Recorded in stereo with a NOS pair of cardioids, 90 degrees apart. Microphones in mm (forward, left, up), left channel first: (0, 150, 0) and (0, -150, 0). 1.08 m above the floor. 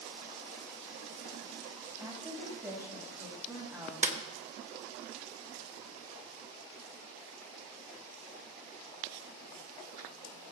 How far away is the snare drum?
About 1.0 m.